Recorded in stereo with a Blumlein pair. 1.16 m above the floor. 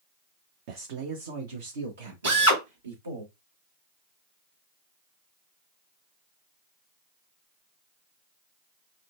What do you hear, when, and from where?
0.7 s a man speaking: 50° right, 0.6 m; by 3.2 s 75° right, 1.9 m
2.2 s a drill: 65° right, 1.9 m